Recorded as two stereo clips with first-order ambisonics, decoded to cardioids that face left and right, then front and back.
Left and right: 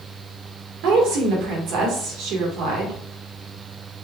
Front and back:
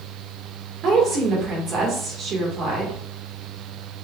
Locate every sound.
0.8 s a woman speaking: 120° right, 1.8 m